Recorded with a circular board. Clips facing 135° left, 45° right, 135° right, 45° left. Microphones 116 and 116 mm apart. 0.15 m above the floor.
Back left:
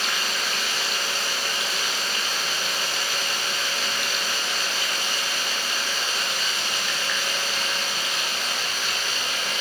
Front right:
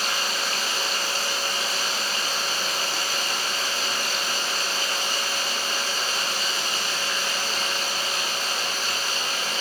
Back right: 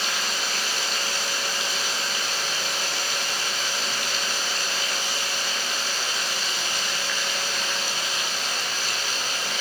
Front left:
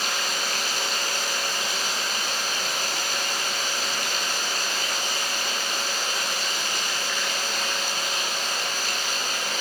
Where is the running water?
5° left, 7.5 m.